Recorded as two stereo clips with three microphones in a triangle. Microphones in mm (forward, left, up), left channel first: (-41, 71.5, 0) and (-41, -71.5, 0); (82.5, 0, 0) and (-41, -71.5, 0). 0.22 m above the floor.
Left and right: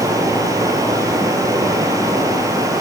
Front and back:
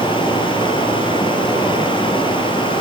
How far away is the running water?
About 4 m.